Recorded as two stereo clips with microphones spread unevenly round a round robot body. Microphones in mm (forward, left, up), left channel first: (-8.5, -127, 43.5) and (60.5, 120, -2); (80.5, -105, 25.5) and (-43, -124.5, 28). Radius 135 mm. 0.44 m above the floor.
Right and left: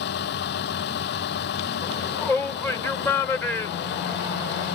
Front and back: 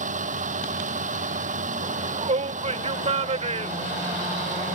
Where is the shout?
165° left.